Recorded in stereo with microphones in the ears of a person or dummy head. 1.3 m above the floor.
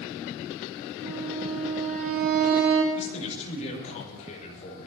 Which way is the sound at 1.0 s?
45° right (ahead or behind).